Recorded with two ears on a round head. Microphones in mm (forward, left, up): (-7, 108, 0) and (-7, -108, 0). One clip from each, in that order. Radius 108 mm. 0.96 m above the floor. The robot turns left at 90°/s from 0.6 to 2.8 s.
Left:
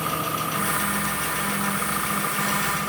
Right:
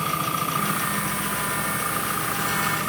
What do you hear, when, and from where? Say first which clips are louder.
0.0 s an engine running: right 1 dB; 140° right, 4.5 m; by 2.9 s 20° left, 4.5 m